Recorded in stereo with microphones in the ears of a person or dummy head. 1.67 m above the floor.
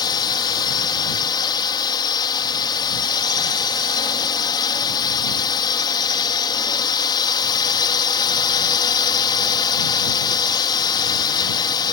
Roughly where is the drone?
Left.